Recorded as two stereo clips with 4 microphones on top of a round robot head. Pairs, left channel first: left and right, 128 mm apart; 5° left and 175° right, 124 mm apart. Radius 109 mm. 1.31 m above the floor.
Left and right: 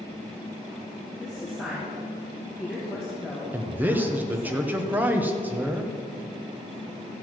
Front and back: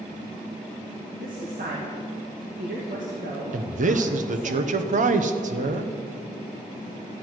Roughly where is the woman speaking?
Behind.